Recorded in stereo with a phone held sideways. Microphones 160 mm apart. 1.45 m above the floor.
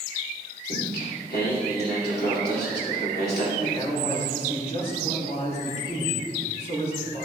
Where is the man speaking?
40° left (ahead or behind), 3.5 m.